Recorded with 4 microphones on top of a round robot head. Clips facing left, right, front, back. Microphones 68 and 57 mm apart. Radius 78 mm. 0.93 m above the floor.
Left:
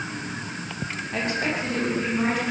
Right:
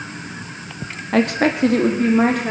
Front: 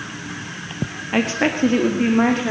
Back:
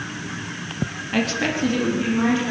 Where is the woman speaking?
75° right, 2 m; by 2.5 s 50° right, 3.5 m.